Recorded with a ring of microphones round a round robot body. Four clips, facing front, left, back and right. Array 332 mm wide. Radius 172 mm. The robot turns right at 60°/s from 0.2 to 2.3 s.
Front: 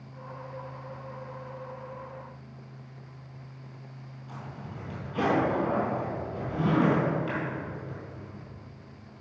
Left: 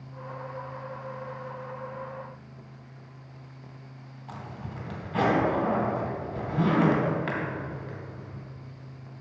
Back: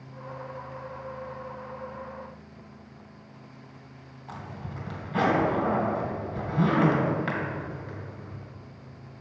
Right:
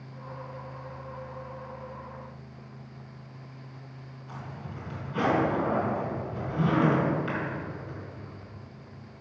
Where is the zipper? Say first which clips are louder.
Left 2 dB, back 3 dB; 135° left, 2.5 m.